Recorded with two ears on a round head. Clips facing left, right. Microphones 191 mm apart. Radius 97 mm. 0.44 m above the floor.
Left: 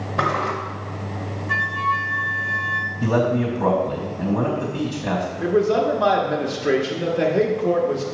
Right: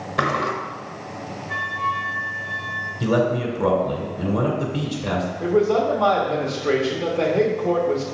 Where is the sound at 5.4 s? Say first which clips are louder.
Even; 15° left (ahead or behind), 1.0 m.